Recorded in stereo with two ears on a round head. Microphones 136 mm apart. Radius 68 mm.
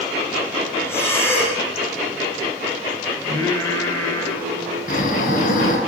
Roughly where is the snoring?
Left.